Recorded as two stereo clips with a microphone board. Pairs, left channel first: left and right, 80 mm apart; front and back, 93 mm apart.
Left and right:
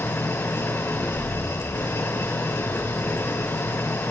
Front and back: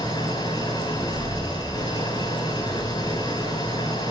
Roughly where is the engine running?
Ahead left.